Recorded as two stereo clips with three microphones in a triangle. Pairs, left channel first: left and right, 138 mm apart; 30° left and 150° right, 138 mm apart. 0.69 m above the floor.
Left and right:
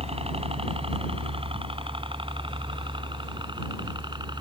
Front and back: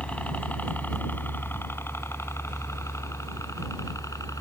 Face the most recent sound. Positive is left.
turn(degrees=-35)